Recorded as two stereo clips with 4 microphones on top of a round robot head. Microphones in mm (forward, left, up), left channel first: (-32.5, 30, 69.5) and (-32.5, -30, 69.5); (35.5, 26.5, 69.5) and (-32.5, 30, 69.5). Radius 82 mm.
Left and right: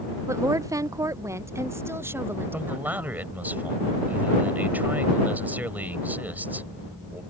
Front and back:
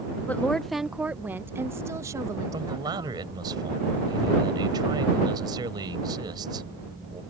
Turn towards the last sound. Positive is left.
turn(degrees=-150)